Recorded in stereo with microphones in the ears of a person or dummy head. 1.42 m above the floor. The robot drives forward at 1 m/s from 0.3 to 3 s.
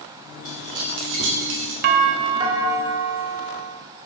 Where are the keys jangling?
55° right (ahead or behind), 2.5 m; by 1.7 s 75° right (ahead or behind), 2 m.